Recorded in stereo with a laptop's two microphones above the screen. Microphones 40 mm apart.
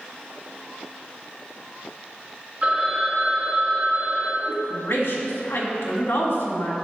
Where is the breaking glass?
No breaking glass in this recording.